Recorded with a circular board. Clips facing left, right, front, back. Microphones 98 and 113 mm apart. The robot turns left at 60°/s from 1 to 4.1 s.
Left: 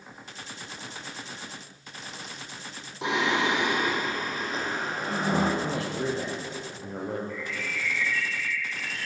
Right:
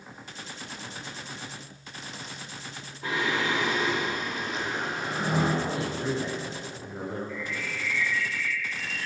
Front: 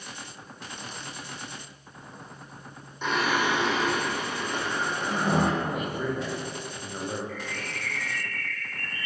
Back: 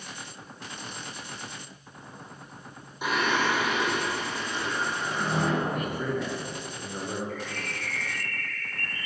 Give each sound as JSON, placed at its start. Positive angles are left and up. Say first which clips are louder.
{"t": 3.0, "sound": "singing", "louder": "left 3 dB, even", "azimuth_deg": 100, "distance_m": 6.0}
{"t": 5.6, "sound": "a man speaking", "louder": "left 1 dB, even", "azimuth_deg": 85, "distance_m": 9.5}
{"t": 7.3, "sound": "a bird", "louder": "even, back 1 dB", "azimuth_deg": 125, "distance_m": 9.5}